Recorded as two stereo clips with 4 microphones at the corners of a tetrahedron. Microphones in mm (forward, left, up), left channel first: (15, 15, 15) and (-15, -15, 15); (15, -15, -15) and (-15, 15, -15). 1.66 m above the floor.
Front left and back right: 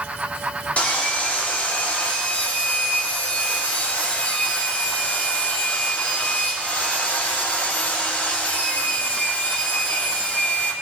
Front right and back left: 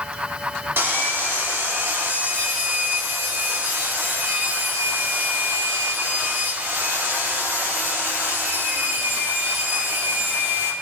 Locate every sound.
0.8 s sawing: 105° left, 3 m